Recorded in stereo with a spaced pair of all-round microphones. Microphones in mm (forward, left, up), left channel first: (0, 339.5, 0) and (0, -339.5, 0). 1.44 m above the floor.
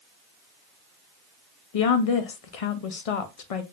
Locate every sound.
1.7 s a woman speaking: 60° left (ahead or behind), 0.6 m